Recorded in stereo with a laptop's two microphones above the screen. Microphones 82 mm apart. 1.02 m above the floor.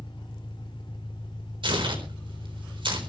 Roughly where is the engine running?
Left.